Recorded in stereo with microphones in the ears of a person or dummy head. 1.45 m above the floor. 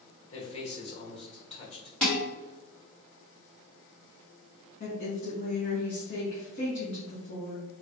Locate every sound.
0.3 s a man speaking: 30° left (ahead or behind), 1.1 m
2.0 s dishes clattering: centre (ahead or behind), 1.7 m
4.8 s a woman speaking: 50° left (ahead or behind), 1.3 m